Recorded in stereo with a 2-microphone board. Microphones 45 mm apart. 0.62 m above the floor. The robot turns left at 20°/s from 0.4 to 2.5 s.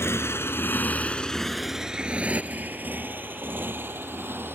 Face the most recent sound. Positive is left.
turn(degrees=-60)  # may be behind; listen again after turning